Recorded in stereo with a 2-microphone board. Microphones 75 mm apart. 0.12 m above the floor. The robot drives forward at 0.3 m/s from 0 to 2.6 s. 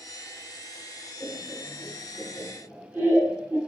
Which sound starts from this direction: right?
Laughter, at 1.2 s.